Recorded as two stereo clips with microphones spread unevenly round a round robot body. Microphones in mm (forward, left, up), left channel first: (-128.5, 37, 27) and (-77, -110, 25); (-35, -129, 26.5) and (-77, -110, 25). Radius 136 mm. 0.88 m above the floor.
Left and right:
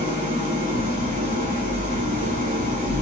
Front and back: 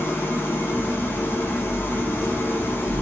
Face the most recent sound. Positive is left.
turn(degrees=-55)